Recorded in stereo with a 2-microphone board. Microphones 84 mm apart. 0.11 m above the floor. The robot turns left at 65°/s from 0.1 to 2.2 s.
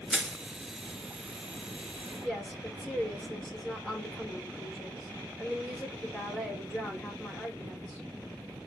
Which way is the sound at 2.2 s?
5° left (ahead or behind).